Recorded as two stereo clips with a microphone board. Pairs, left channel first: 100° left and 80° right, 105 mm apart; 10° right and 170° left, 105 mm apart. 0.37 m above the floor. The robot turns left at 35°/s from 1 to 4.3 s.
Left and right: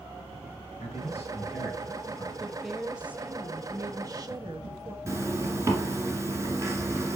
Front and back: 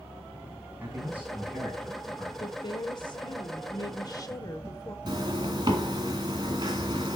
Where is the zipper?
140° right, 1.9 m.